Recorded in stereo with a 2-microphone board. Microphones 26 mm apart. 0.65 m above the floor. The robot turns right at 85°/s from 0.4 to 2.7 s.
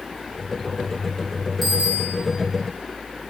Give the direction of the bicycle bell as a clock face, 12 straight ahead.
6 o'clock.